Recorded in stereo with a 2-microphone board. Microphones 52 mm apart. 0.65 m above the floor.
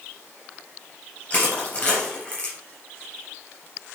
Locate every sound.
1.3 s crushing: 30° left (ahead or behind), 3.5 m